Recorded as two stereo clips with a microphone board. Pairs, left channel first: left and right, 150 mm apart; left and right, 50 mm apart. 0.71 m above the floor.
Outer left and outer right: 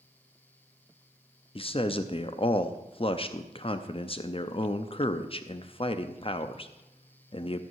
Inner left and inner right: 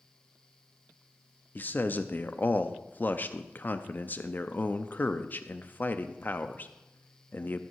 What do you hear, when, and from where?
1.6 s a man speaking: 40° left (ahead or behind), 0.5 m